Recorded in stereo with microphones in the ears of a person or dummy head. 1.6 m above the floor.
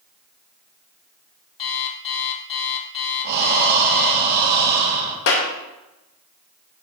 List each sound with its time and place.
1.6 s an alarm clock: 30° left (ahead or behind), 1.6 m
3.2 s breathing: 60° right (ahead or behind), 1.7 m
5.3 s a clap: 65° left (ahead or behind), 1.5 m